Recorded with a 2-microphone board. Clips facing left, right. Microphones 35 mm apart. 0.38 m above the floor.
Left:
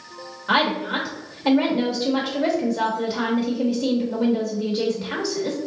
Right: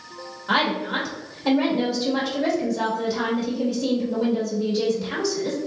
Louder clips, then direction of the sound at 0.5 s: Left 1 dB; 20° left (ahead or behind).